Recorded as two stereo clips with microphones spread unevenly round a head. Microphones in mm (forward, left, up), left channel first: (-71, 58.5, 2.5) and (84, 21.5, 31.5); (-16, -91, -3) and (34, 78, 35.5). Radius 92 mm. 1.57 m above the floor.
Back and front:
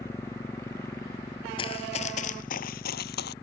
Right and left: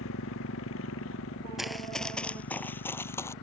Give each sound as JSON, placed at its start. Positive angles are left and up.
{"t": 0.0, "sound": "a motorcycle", "azimuth_deg": -115}
{"t": 1.6, "sound": "running footsteps", "azimuth_deg": 130}